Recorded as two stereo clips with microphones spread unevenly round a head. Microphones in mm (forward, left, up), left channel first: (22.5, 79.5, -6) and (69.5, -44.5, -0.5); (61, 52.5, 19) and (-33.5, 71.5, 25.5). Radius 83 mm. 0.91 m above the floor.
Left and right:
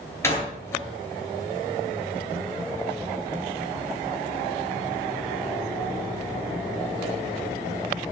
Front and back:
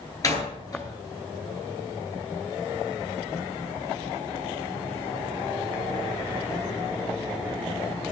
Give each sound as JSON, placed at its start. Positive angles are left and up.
{"t": 0.2, "sound": "a door slam", "azimuth_deg": 40, "distance_m": 10.0}